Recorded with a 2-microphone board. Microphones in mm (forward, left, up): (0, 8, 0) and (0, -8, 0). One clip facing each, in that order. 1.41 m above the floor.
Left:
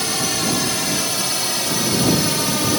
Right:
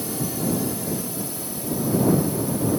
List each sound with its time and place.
0.0 s a drone: 60° left (ahead or behind); by 2.8 s 75° left (ahead or behind)